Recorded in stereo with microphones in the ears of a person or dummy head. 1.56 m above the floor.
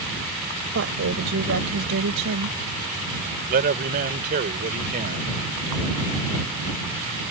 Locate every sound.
0.7 s a woman speaking: 65° right (ahead or behind); by 2.6 s 75° right (ahead or behind)
3.5 s a man speaking: 50° right (ahead or behind)